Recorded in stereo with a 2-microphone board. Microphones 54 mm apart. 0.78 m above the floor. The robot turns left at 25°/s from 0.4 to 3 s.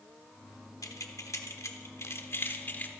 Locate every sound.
0.8 s keys jangling: 85° left, 1.1 m; by 2.9 s 35° left (ahead or behind), 1.1 m